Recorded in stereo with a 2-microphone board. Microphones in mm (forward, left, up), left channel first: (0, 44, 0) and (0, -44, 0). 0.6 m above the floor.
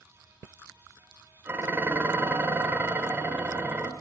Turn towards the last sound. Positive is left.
turn(degrees=-25)  # may be behind; listen again after turning